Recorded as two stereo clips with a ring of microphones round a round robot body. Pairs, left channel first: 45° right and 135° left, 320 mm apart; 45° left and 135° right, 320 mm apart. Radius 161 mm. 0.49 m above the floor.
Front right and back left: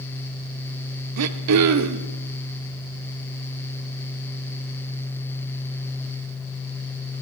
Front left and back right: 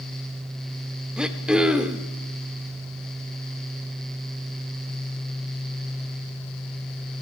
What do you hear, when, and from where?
1.2 s throat clearing: 140° left, 0.8 m